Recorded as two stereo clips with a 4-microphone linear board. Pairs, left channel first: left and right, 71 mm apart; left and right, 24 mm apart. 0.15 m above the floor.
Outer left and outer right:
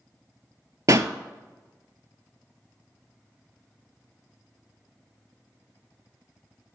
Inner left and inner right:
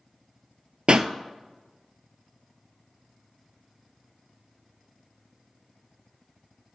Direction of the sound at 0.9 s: 50° right (ahead or behind).